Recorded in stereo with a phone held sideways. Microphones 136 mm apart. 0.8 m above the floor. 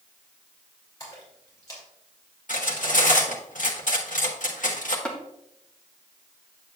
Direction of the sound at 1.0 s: 25° left (ahead or behind).